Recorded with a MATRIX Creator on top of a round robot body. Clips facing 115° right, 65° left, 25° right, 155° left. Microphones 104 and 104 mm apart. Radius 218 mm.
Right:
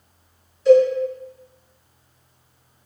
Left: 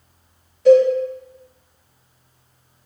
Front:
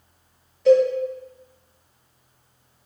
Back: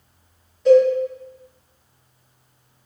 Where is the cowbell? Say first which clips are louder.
Left 2 dB, back 3 dB; 70° left, 1.7 m.